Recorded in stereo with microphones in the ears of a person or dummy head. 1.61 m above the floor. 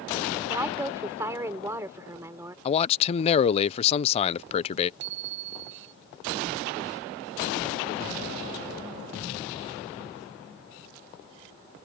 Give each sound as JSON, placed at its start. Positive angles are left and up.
{"t": 0.5, "sound": "a woman speaking", "side_deg": -15}
{"t": 2.6, "sound": "a man speaking", "side_deg": 40}
{"t": 5.0, "sound": "a bicycle bell", "side_deg": -65}